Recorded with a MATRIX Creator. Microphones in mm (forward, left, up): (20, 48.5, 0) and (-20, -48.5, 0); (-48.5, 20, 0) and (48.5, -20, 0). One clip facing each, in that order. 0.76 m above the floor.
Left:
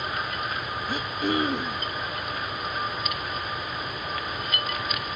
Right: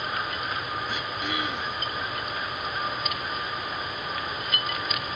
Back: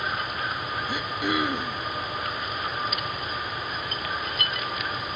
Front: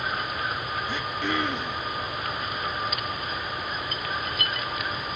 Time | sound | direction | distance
0.9 | throat clearing | 85° left | 0.8 m